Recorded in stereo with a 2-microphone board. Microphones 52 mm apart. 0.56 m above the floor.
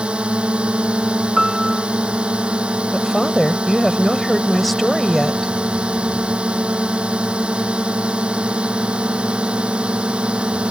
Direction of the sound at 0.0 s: 20° right (ahead or behind).